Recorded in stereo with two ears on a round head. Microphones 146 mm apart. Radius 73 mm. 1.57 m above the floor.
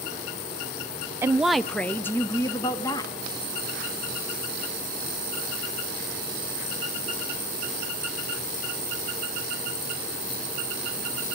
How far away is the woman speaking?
About 0.5 m.